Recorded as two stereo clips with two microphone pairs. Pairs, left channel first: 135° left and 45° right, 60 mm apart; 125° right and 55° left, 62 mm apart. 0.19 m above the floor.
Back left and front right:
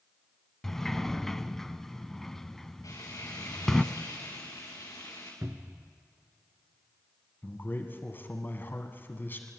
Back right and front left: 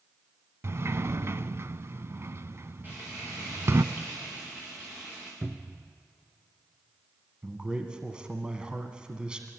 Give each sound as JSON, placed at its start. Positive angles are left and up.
{"t": 0.6, "sound": "a sliding door", "azimuth_deg": 55, "distance_m": 0.5}
{"t": 2.8, "sound": "frying", "azimuth_deg": 115, "distance_m": 7.0}
{"t": 5.4, "sound": "a cupboard door", "azimuth_deg": -5, "distance_m": 1.0}
{"t": 7.4, "sound": "a man speaking", "azimuth_deg": 115, "distance_m": 1.7}